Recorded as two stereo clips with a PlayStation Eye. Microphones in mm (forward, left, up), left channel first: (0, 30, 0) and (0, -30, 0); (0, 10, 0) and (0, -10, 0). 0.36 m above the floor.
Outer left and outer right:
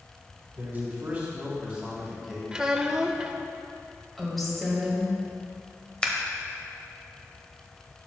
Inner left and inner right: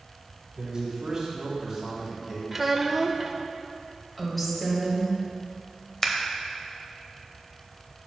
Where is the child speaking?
15° right (ahead or behind), 0.6 m.